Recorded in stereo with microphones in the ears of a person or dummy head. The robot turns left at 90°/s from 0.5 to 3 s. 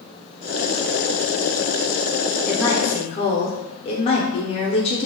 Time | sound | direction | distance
2.5 | a woman speaking | 175° left | 0.6 m